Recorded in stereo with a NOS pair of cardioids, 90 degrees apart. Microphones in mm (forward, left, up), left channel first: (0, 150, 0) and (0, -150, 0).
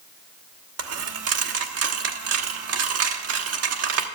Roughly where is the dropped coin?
Ahead right.